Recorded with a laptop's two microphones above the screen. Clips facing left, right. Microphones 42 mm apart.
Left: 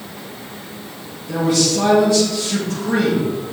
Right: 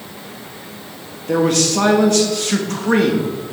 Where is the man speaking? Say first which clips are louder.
Right 2 dB; 60° right (ahead or behind), 1.8 m.